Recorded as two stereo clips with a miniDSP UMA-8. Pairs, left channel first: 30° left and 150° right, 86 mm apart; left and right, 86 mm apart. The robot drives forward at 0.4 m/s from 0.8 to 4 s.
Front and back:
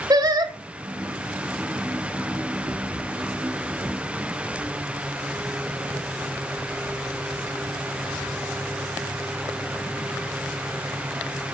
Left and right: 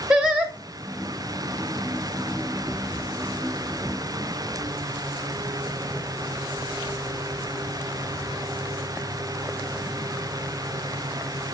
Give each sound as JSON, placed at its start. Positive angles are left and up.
{"t": 0.1, "sound": "singing", "azimuth_deg": -170, "distance_m": 1.0}